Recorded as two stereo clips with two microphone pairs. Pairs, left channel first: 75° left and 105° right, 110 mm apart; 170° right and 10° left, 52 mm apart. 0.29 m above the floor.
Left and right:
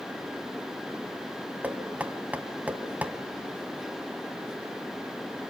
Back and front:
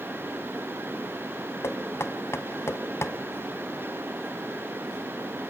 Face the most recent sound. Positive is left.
turn(degrees=180)